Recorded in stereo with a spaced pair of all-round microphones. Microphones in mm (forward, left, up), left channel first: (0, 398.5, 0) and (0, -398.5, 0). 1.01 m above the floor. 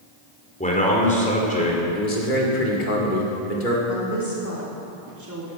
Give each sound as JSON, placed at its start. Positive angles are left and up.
{"t": 0.6, "sound": "a man speaking", "side_deg": 10, "distance_m": 2.5}
{"t": 1.9, "sound": "a man speaking", "side_deg": 75, "distance_m": 2.5}
{"t": 3.9, "sound": "a woman speaking", "side_deg": -20, "distance_m": 3.0}